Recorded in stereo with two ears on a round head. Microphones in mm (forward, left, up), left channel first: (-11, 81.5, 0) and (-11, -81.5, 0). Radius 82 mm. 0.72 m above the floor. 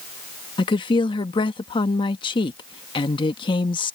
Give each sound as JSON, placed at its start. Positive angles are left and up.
{"t": 0.6, "sound": "a woman speaking", "side_deg": 25}